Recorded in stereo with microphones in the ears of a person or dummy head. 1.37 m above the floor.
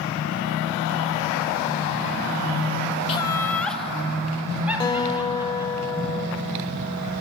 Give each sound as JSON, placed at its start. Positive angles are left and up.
{"t": 3.1, "sound": "laughter", "side_deg": 30, "distance_m": 0.7}
{"t": 4.8, "sound": "a guitar", "side_deg": 20, "distance_m": 1.4}